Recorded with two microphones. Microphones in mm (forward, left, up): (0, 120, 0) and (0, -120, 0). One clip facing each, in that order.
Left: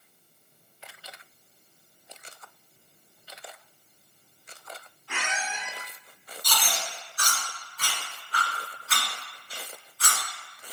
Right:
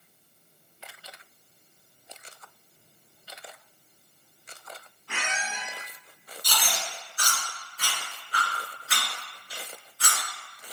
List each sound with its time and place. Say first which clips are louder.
5.1 s a squeak: left 1 dB; 40° right (ahead or behind), 1.2 m
6.4 s chewing: left 1 dB; 25° right (ahead or behind), 1.7 m